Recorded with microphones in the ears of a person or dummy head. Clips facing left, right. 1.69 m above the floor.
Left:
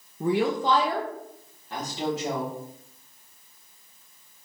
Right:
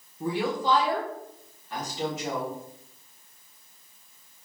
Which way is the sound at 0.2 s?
40° left (ahead or behind).